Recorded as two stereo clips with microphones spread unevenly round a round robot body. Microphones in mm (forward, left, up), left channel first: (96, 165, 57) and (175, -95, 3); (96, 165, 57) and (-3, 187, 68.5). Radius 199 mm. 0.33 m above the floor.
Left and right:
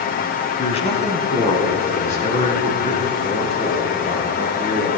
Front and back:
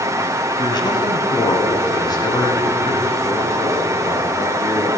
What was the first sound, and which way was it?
A man speaking, 35° left.